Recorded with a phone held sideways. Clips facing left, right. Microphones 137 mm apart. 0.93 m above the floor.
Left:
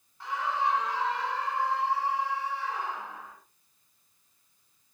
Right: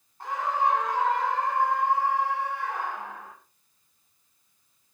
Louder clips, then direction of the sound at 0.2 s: Right 3 dB; 45° right (ahead or behind).